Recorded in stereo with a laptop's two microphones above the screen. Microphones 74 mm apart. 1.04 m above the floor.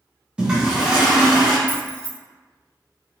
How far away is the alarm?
I don't hear an alarm.